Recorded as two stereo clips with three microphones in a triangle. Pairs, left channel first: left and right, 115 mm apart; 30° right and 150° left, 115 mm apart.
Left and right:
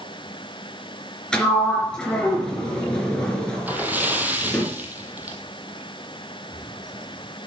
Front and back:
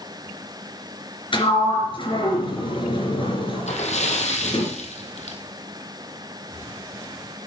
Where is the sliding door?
10° left, 3 m.